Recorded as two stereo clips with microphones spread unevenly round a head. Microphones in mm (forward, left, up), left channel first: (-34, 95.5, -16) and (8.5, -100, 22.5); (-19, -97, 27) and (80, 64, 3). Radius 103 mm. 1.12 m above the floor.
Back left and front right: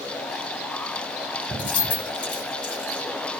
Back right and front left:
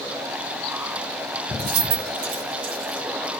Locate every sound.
1.6 s keys jangling: 65° left, 1.7 m